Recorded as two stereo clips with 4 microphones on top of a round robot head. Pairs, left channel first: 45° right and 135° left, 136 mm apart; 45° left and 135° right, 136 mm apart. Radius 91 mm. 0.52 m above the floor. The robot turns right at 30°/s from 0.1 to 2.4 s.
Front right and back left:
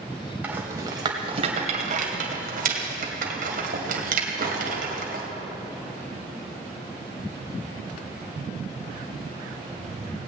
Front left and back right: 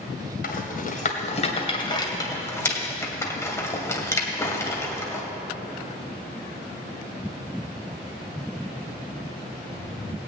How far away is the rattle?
About 2 m.